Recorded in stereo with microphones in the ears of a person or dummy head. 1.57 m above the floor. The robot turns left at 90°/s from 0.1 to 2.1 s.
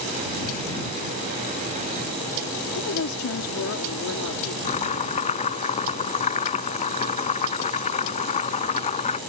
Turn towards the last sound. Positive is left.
turn(degrees=35)  # may be behind; listen again after turning